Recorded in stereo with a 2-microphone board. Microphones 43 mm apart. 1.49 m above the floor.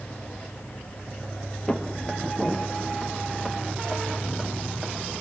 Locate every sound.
1.7 s footsteps: 20° left (ahead or behind), 2 m; by 4.9 s 10° right (ahead or behind), 3.5 m